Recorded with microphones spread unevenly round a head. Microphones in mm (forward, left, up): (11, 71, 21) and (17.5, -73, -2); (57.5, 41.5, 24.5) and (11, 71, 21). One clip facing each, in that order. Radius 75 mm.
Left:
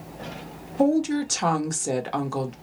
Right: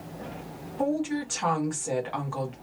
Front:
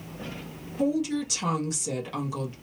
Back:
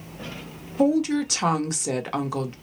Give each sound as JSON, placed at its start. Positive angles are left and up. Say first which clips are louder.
{"t": 0.8, "sound": "a woman speaking", "louder": "left 6 dB, back 5 dB", "azimuth_deg": 135, "distance_m": 0.9}